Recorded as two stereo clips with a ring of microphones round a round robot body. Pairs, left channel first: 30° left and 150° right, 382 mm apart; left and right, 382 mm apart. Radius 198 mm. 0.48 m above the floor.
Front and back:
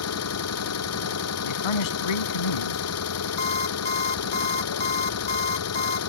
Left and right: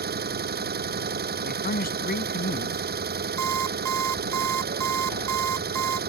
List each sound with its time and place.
0.0 s an engine running: 25° right
1.4 s a man speaking: 20° left
3.4 s an alarm clock: 45° right